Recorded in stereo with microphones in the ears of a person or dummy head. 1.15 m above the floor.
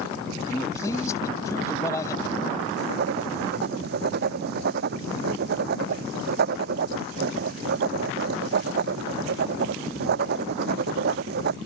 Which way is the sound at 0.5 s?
15° left (ahead or behind).